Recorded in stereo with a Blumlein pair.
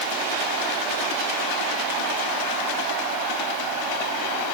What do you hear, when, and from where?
Only background noise.